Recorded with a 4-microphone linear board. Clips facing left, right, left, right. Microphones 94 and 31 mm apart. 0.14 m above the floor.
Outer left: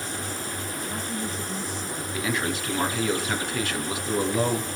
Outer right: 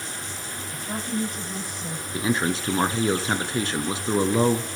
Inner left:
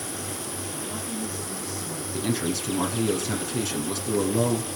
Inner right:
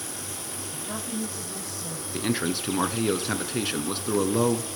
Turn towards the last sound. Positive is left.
turn(degrees=-30)  # may be behind; listen again after turning